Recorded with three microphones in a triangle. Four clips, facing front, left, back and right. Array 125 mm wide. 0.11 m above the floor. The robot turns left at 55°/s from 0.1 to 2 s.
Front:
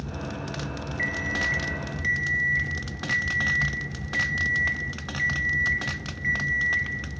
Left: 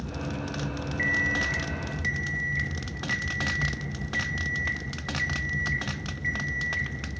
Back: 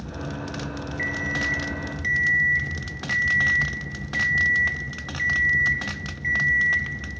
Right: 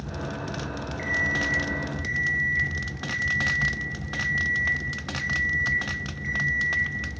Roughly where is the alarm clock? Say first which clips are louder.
Even, back 1 dB; ahead left.